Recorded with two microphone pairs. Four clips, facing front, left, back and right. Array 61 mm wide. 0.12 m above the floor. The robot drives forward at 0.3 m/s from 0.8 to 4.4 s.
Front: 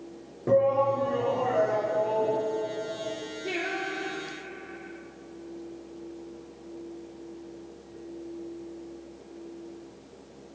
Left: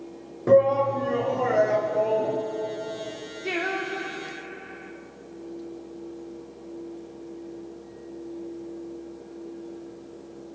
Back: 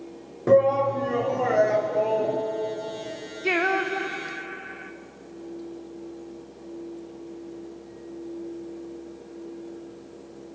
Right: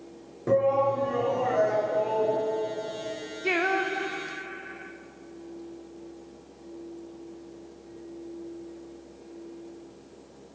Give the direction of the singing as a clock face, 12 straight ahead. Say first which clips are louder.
Right 3 dB, back 9 dB; 5 o'clock.